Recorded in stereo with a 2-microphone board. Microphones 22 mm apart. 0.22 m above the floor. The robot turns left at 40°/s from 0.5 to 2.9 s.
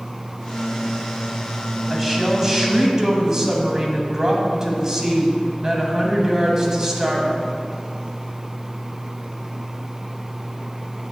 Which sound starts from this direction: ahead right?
A woman speaking, at 1.9 s.